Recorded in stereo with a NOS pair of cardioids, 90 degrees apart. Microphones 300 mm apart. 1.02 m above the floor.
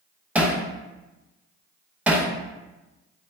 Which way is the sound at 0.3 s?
5° right.